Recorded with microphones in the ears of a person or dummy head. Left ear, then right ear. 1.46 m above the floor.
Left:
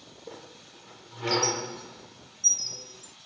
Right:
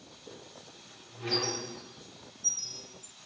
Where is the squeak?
35° left (ahead or behind), 0.7 m.